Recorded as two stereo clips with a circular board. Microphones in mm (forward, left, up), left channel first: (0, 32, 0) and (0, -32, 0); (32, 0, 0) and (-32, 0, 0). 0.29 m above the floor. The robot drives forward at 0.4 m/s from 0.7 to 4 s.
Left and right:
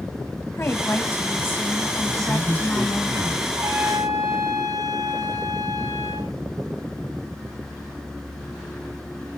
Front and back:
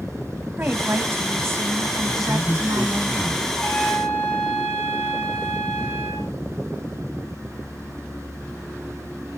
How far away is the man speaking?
About 2 m.